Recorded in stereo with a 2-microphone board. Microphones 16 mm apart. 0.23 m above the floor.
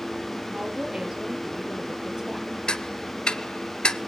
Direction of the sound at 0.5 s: 60° right (ahead or behind).